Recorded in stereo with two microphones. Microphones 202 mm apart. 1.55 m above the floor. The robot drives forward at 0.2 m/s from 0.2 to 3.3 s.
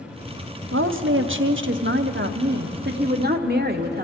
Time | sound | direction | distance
0.7 | a woman speaking | 80° right | 0.7 m